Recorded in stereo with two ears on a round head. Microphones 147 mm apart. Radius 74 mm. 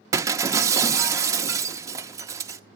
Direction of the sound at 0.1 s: 20° right (ahead or behind).